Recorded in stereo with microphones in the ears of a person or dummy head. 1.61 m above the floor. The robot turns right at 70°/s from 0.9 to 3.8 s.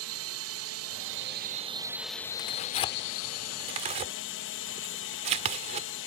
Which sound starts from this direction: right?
A drone, at 0.0 s.